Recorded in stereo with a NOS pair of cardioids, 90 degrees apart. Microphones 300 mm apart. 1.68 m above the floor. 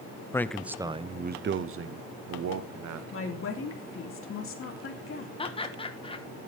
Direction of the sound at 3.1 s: 45° left.